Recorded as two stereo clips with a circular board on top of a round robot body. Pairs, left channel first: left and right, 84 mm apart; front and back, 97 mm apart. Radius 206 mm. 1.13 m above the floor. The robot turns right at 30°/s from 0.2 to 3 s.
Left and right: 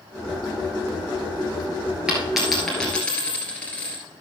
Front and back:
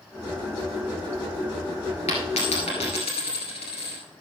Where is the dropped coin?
10° right, 1.5 m; by 4.0 s 15° left, 1.5 m.